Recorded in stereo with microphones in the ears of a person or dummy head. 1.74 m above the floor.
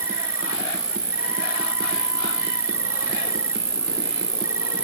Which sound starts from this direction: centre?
An insect, at 0.0 s.